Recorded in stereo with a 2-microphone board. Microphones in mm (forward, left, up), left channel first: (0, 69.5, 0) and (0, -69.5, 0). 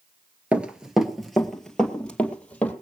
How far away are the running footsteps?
About 1.4 m.